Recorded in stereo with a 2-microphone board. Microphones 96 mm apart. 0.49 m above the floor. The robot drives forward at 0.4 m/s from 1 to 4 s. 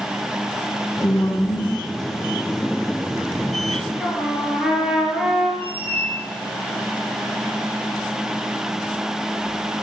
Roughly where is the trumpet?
Centre.